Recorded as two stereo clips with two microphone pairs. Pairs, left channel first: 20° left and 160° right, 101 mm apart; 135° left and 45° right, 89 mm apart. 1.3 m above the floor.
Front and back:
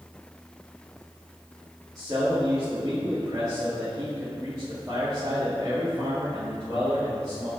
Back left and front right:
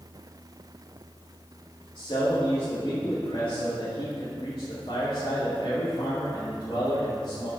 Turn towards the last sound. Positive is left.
turn(degrees=145)